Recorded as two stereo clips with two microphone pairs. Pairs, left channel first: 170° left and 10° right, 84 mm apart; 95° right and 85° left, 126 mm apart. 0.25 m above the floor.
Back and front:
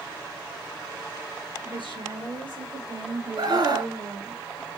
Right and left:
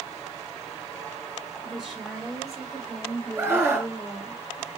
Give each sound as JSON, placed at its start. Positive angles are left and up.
{"t": 1.6, "sound": "a woman speaking", "azimuth_deg": 0, "distance_m": 3.0}
{"t": 3.4, "sound": "a scream", "azimuth_deg": 15, "distance_m": 3.5}